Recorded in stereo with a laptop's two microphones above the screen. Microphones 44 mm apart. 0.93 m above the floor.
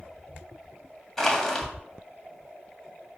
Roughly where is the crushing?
Centre.